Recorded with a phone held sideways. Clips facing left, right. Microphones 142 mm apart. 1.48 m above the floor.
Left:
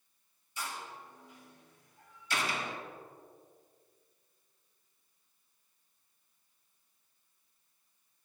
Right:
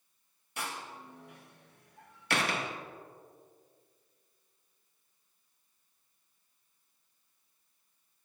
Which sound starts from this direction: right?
A door slam, at 0.6 s.